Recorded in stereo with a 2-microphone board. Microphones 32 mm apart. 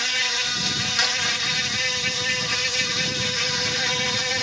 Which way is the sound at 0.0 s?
Centre (ahead or behind).